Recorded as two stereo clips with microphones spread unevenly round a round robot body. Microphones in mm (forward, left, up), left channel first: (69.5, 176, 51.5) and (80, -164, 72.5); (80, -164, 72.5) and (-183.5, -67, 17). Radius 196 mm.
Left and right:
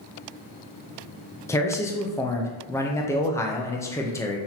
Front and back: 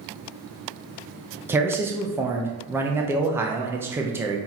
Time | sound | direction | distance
1.5 | a man speaking | 145° left | 0.5 m